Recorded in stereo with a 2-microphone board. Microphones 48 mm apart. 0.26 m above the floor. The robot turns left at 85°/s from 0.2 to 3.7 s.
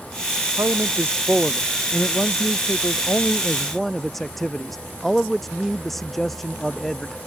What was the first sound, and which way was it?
A man speaking, 90° right.